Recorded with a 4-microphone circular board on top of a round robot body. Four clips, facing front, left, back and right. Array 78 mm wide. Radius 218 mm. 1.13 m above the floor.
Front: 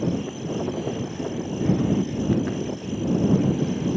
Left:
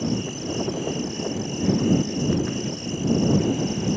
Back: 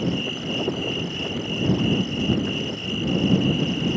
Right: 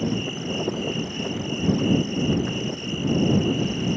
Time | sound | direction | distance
0.0 | an insect | 150° right | ?